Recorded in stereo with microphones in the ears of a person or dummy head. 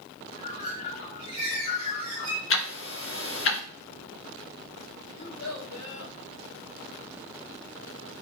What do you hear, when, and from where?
0.3 s a bird: 40° left (ahead or behind), 2.5 m
2.5 s ticking: 60° left (ahead or behind), 1.3 m
5.1 s a child speaking: 75° left (ahead or behind), 4.5 m